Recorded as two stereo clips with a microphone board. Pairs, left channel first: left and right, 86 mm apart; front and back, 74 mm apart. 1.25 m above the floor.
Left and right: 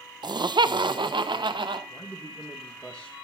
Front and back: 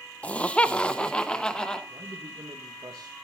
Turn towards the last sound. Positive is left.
turn(degrees=165)